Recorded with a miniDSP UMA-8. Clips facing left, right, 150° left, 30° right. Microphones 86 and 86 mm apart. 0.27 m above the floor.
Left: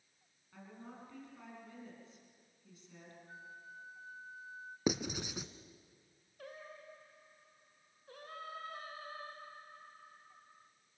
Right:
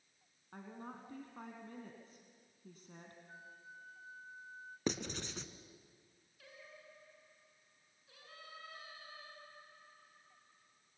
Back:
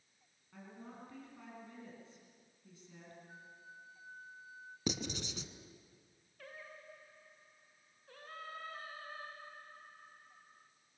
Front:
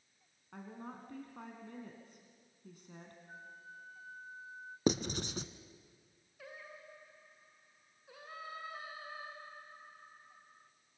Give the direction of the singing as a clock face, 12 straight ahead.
10 o'clock.